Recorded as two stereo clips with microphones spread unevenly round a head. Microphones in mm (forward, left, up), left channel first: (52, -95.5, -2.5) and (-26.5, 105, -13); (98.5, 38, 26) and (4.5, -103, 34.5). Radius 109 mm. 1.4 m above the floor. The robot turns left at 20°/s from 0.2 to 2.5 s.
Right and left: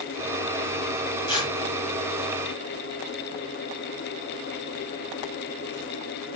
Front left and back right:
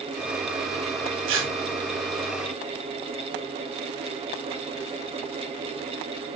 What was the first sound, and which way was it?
Tearing paper, 140° right.